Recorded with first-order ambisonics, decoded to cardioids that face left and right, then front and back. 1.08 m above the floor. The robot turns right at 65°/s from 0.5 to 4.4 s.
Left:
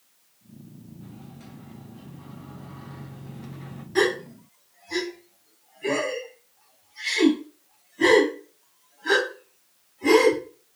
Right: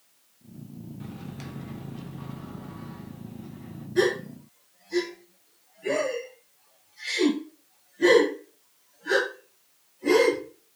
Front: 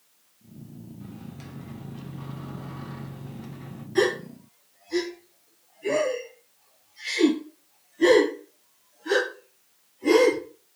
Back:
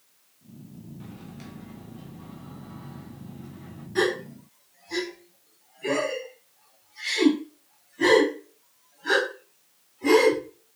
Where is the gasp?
85° left, 1.8 m; by 10.4 s 115° left, 1.8 m.